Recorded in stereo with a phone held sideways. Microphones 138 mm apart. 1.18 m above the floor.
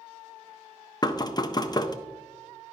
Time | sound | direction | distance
1.0 | knocking | 30° left (ahead or behind) | 0.5 m